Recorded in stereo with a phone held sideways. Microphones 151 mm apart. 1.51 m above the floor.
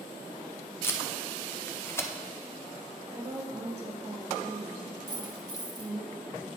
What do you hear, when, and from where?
0.8 s tape being pulled: 15° left (ahead or behind), 0.6 m
3.1 s a woman speaking: 40° right (ahead or behind), 1.5 m
5.1 s a dropped coin: 25° right (ahead or behind), 1.0 m